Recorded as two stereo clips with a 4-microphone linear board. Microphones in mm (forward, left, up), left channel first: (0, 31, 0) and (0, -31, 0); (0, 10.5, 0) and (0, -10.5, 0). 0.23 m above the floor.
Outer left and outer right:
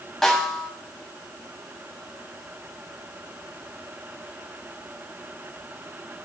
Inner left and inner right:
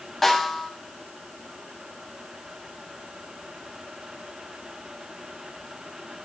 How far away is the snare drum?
About 1.2 m.